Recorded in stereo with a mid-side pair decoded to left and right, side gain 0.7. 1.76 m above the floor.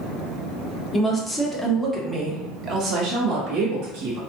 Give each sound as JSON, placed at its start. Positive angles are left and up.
{"t": 0.9, "sound": "a woman speaking", "azimuth_deg": 20, "distance_m": 1.1}